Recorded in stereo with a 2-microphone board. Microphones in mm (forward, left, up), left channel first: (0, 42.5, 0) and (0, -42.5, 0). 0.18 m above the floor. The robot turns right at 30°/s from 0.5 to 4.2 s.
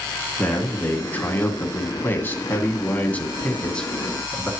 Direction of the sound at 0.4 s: 20° left (ahead or behind).